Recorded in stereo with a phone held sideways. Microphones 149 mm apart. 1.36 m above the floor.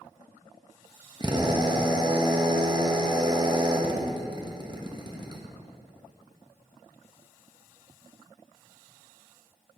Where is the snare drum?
I don't hear a snare drum.